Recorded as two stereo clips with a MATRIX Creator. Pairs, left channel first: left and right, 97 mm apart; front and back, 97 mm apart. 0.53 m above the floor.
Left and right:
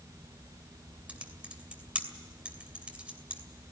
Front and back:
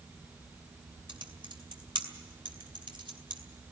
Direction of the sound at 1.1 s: 165° right.